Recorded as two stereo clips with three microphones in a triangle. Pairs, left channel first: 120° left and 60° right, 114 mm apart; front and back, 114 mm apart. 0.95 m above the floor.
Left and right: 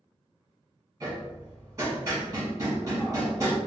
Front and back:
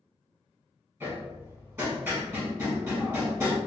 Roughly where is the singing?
I don't hear singing.